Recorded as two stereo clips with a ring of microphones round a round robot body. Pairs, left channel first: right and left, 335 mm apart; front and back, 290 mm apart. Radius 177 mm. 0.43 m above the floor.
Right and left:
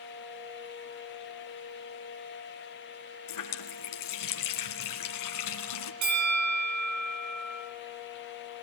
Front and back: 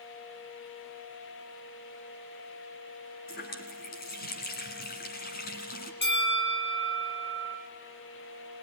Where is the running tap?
65° right, 3 m.